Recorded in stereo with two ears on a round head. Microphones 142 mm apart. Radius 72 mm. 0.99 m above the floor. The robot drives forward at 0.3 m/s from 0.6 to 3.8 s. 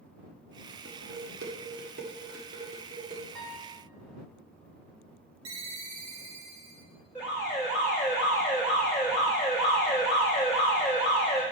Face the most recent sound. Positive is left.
turn(degrees=-5)  # may be behind; listen again after turning